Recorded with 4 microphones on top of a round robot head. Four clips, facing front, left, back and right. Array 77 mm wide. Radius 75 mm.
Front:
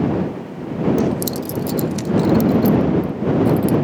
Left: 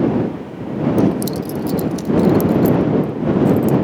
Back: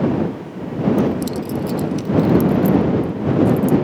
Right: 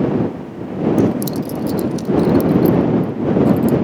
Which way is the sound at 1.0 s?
25° right.